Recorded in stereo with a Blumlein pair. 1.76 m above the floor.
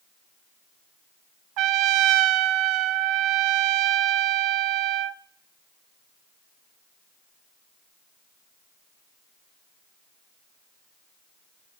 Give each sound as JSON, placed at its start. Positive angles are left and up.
{"t": 1.6, "sound": "a trumpet", "azimuth_deg": -40, "distance_m": 0.6}